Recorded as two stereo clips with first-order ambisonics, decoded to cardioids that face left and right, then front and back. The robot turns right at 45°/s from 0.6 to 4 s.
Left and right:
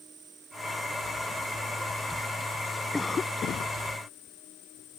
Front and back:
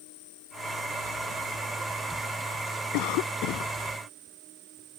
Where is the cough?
10° left; by 3.8 s 45° left.